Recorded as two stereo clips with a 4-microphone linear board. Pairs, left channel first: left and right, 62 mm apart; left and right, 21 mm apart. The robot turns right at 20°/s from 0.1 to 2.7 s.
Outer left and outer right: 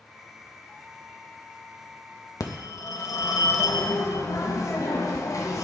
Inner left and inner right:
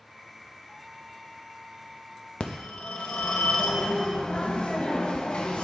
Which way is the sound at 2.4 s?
65° left (ahead or behind).